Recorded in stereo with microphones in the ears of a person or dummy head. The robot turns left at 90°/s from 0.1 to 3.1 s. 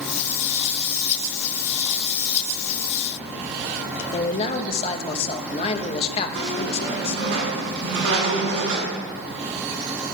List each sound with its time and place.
4.1 s a man speaking: 20° left (ahead or behind), 1.3 m
6.3 s a squeak: 60° right (ahead or behind), 7.5 m